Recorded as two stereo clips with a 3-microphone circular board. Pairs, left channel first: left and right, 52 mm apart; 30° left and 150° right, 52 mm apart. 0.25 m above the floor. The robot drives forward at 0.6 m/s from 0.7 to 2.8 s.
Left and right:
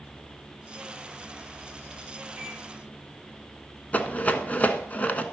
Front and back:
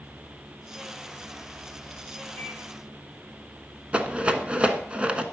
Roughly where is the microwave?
Behind.